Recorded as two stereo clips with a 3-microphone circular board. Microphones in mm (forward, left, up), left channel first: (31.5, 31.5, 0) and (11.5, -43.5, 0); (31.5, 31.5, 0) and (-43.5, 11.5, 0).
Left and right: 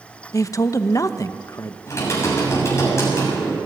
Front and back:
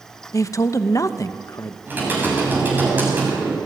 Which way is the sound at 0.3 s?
45° left.